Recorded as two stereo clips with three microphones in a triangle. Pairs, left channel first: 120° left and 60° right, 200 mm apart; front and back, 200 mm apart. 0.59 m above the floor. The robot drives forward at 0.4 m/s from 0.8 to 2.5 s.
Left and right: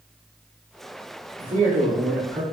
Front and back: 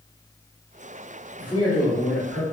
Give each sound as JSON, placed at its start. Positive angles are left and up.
{"t": 1.4, "sound": "a man speaking", "azimuth_deg": -70, "distance_m": 1.7}